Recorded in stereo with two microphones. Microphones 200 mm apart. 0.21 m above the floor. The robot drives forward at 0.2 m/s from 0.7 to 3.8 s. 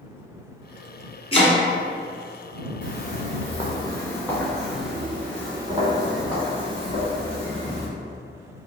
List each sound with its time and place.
1.3 s chopping: 30° left (ahead or behind), 1.2 m
2.8 s footsteps: 50° left (ahead or behind), 1.2 m; by 7.9 s 35° right (ahead or behind), 3 m